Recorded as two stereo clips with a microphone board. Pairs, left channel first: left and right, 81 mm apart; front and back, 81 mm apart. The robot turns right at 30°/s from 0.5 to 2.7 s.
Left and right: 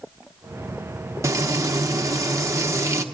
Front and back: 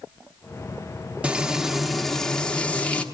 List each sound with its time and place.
1.2 s frying: 110° right, 0.8 m; by 3.0 s 65° right, 0.8 m